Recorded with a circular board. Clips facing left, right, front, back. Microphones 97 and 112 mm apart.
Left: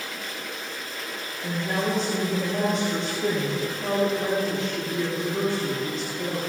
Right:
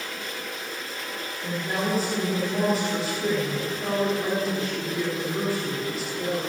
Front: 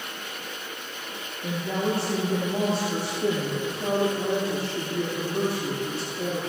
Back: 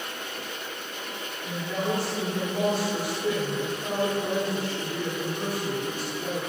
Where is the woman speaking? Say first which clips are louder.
Left 1 dB, front 3 dB; 5° right, 6 m.